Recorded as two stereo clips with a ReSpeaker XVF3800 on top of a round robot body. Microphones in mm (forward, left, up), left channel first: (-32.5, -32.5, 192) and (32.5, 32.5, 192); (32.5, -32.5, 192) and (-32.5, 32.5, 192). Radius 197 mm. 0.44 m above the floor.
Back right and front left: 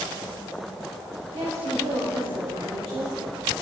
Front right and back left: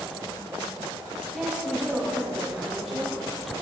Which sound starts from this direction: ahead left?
A woman speaking, at 1.3 s.